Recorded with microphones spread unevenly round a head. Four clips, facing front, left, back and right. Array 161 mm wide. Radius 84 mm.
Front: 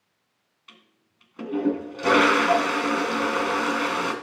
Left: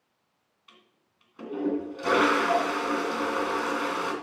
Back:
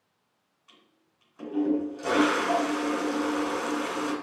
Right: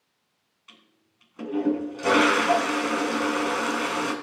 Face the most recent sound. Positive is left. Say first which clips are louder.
# right 2 dB, front 5 dB
turn(degrees=-25)